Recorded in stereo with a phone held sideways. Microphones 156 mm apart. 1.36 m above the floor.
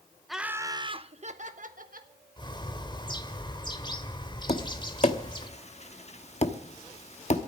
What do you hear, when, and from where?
0.3 s laughter: centre (ahead or behind), 0.7 m; by 2.1 s 65° right (ahead or behind), 1.4 m
2.4 s a bird: 30° left (ahead or behind), 1.4 m
4.5 s tapping: 45° left (ahead or behind), 1.0 m